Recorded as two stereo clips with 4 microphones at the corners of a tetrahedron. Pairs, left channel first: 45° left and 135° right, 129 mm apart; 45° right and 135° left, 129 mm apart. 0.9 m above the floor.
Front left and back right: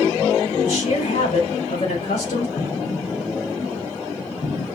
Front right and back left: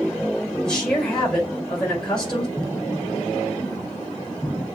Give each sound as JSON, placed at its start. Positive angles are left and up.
{"t": 0.6, "sound": "a woman speaking", "azimuth_deg": 40, "distance_m": 3.5}
{"t": 2.6, "sound": "an explosion", "azimuth_deg": 40, "distance_m": 3.0}